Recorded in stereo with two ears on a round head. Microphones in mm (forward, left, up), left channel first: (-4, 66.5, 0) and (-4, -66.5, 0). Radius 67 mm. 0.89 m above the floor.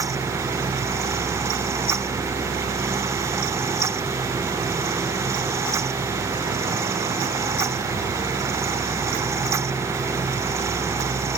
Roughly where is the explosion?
No explosion in this recording.